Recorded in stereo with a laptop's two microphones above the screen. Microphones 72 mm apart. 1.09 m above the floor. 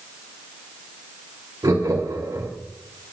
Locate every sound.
1.6 s laughter: 55° right (ahead or behind), 2.5 m